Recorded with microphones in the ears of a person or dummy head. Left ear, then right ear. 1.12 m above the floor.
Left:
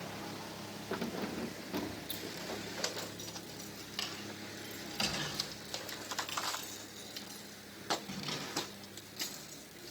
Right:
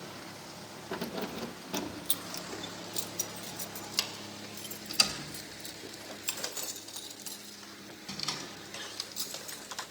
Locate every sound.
0.9 s keys jangling: 15° right (ahead or behind), 0.6 m; by 9.6 s 55° right (ahead or behind), 7 m